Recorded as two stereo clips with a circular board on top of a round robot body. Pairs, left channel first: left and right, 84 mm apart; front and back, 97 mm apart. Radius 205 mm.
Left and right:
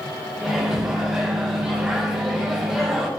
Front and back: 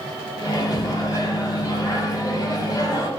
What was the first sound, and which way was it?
A microwave, 10° right.